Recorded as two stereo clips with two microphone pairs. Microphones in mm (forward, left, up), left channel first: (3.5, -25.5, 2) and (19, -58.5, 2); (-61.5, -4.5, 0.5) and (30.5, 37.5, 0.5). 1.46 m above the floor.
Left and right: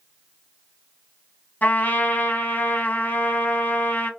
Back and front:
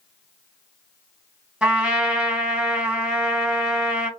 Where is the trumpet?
105° left, 0.8 m.